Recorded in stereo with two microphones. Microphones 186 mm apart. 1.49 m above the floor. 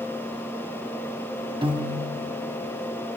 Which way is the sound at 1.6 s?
30° right (ahead or behind).